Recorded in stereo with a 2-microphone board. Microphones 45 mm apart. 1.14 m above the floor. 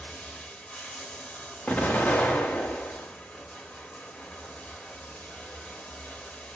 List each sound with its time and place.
0.0 s running water: 25° left (ahead or behind), 1.0 m
1.7 s an explosion: 35° left (ahead or behind), 1.0 m